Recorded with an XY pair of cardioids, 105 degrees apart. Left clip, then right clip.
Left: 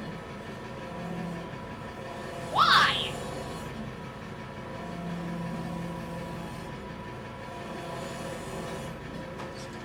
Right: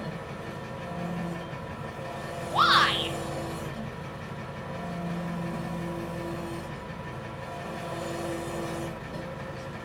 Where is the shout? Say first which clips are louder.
Even; 5° right, 0.6 m.